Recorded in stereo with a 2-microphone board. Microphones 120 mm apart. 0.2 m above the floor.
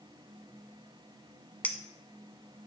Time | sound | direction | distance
1.6 | a clink | 15° left (ahead or behind) | 0.8 m